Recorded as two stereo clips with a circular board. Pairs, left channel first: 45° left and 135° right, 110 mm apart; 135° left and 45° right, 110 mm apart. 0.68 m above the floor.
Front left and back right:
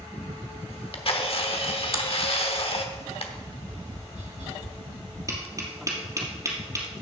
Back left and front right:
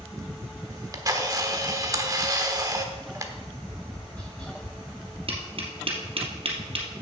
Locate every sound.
0.7 s a camera shutter: 15° left, 1.0 m
3.4 s tapping: 145° right, 5 m
5.3 s tapping: 75° right, 2.5 m